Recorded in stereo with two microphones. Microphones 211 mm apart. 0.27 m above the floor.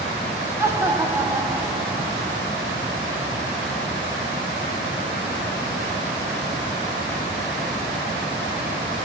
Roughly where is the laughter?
Centre.